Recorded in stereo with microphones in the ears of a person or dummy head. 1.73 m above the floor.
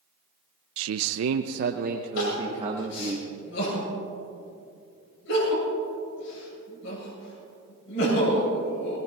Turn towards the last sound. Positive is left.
turn(degrees=75)  # may be behind; listen again after turning